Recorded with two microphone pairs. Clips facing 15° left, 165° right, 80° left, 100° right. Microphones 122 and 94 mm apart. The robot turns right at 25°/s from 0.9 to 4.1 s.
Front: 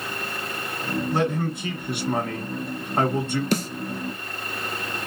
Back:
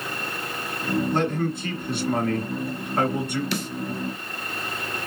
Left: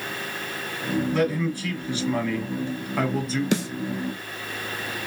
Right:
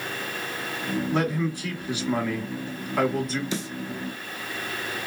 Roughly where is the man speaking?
Ahead right.